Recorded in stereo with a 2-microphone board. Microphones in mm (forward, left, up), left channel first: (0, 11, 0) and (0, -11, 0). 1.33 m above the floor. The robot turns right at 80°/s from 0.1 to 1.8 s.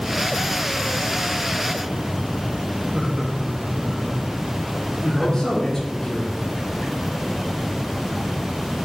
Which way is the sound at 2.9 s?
15° right (ahead or behind).